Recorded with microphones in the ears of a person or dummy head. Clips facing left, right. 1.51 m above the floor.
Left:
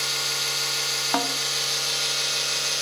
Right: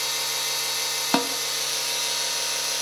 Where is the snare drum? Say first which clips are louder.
Right 2 dB; 35° right (ahead or behind), 0.7 m.